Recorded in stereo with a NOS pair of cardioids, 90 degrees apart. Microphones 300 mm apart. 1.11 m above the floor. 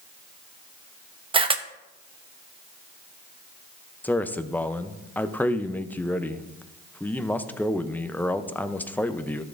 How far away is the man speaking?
About 0.6 m.